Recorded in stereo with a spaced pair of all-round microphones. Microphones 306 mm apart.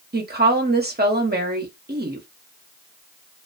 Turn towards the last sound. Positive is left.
turn(degrees=-30)  # may be behind; listen again after turning